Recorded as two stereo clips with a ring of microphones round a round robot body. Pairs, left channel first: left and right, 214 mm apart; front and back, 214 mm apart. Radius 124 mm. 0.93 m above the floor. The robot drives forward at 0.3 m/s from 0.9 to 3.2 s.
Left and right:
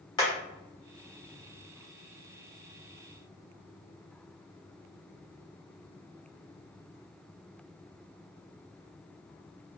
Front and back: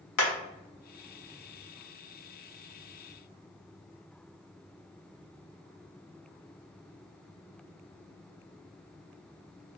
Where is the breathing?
No breathing in this recording.